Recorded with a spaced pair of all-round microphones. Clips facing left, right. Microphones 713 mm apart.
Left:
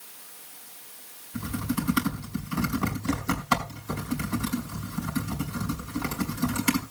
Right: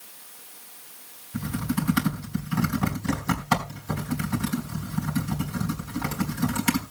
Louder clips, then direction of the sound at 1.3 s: Right 2 dB; 25° right (ahead or behind).